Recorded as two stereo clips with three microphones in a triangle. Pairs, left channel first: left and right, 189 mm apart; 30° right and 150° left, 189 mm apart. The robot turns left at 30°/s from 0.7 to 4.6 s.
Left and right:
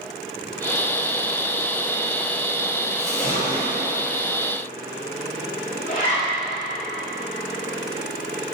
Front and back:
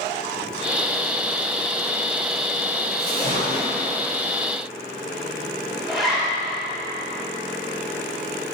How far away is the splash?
About 1.3 m.